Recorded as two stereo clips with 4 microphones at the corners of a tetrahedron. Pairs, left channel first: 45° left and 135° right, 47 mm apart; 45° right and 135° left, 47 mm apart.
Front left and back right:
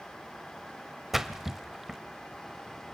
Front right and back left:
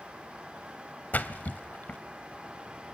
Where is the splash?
55° right, 0.8 m.